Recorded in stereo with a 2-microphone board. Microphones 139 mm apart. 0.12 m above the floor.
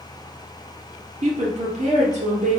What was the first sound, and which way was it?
A woman speaking, 55° right (ahead or behind).